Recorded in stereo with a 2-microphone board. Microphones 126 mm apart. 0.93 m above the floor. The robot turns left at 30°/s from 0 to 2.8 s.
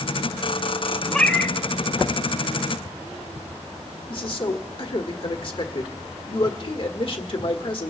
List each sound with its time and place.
1.1 s a cat meowing: centre (ahead or behind), 1.1 m; by 1.6 s 10° left (ahead or behind), 1.1 m
4.1 s a man speaking: 45° left (ahead or behind), 1.3 m